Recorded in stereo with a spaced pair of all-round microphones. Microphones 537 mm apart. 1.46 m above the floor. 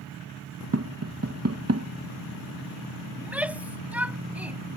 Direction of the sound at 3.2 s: 5° right (ahead or behind).